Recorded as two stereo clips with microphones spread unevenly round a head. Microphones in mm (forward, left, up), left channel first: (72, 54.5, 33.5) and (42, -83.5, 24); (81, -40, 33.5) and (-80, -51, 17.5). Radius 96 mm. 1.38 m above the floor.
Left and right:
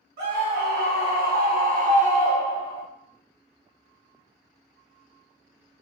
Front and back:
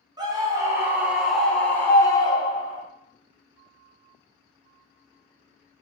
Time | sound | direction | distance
0.2 | a scream | 110° right | 1.4 m